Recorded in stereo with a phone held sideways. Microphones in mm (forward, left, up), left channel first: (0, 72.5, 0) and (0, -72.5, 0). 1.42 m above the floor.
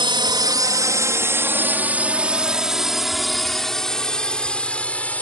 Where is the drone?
35° right (ahead or behind); by 5.2 s 10° left (ahead or behind).